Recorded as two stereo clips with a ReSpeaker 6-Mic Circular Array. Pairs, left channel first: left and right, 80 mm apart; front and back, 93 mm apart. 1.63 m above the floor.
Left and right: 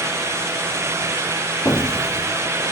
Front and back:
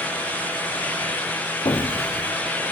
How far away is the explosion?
About 0.8 m.